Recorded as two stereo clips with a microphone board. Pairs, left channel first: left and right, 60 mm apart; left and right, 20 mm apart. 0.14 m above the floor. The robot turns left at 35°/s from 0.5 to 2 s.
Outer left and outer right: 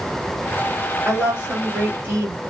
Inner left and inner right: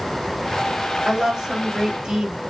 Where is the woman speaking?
10° right, 3 m; by 2.4 s 40° right, 3 m.